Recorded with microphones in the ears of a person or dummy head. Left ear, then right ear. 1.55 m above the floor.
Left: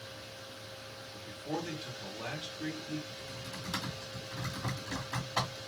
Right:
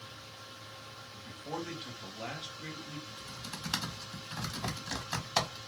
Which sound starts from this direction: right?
Typing on a keyboard, at 3.1 s.